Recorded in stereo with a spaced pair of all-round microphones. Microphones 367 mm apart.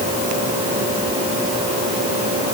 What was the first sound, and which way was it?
Only background noise.